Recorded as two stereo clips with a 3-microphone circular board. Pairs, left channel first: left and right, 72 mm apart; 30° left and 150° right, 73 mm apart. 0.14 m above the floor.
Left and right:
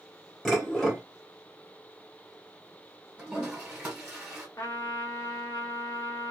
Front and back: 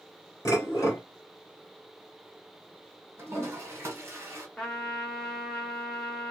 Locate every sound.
0.5 s dishes clattering: 5° left, 1.6 m
3.2 s a toilet flushing: 155° right, 1.5 m
4.6 s a trumpet: 105° left, 1.2 m